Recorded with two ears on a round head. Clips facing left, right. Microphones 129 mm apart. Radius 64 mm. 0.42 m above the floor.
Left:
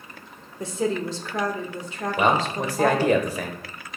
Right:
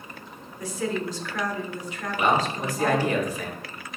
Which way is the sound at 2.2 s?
55° left (ahead or behind).